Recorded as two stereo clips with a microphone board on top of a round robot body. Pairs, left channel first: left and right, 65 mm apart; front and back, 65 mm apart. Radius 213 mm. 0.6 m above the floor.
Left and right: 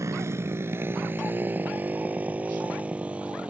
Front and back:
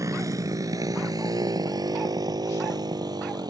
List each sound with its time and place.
0.0 s a motorcycle: 140° right; by 3.5 s 165° right